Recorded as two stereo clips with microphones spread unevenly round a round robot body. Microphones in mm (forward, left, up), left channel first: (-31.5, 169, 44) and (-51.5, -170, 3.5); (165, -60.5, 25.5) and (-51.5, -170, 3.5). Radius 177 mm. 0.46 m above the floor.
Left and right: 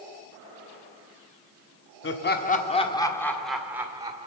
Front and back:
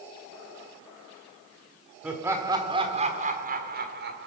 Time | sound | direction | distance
2.0 | laughter | 130° left | 1.4 m